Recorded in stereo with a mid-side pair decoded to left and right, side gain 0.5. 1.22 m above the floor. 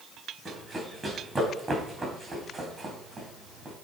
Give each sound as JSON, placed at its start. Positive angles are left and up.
{"t": 0.5, "sound": "running footsteps", "azimuth_deg": -15, "distance_m": 5.0}